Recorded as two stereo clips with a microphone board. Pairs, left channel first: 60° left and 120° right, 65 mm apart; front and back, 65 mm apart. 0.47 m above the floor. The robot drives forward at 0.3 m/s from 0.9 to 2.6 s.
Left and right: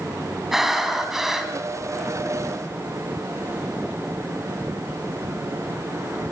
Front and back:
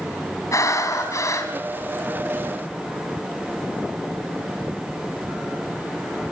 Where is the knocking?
I don't hear knocking.